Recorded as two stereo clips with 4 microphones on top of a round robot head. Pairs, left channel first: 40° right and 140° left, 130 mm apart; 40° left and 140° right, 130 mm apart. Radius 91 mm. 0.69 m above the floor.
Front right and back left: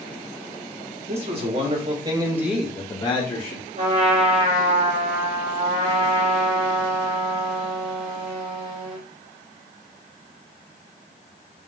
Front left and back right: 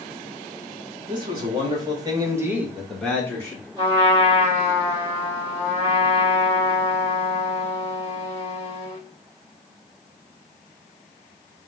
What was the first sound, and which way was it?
A man speaking, 170° left.